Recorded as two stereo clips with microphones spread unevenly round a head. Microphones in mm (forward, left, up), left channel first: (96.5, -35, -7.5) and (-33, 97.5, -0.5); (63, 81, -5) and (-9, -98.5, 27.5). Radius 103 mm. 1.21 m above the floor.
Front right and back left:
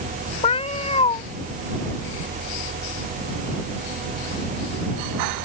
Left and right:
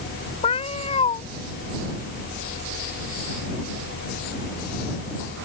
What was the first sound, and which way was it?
A cat meowing, 5° left.